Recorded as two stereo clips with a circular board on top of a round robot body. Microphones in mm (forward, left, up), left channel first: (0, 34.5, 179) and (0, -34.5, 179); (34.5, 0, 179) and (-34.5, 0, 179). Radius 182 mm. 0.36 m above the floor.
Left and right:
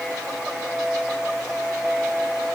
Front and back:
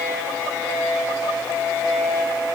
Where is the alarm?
I don't hear an alarm.